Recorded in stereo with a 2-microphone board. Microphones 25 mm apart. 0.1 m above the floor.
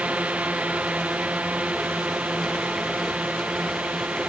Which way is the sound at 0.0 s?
65° right (ahead or behind).